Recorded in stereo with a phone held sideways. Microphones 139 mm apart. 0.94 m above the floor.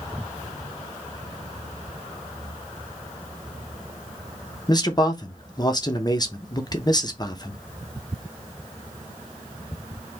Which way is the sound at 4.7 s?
30° left (ahead or behind).